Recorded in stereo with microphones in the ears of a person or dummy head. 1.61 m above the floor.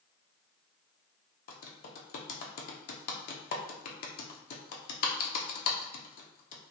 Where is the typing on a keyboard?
50° left (ahead or behind), 0.6 m.